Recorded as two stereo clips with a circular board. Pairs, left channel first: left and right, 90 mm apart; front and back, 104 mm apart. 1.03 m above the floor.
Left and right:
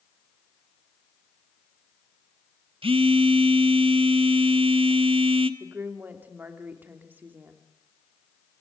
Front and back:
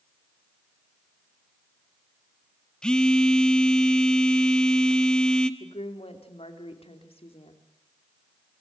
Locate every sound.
2.8 s a phone buzzing: 85° right, 1.1 m
5.6 s a woman speaking: 20° right, 3 m